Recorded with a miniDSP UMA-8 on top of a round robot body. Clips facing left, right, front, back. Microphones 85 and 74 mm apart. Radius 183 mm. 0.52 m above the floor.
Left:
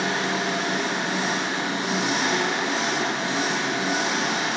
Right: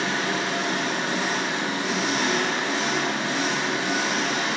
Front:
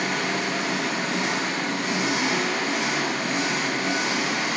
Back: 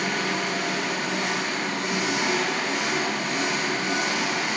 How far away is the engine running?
About 3 m.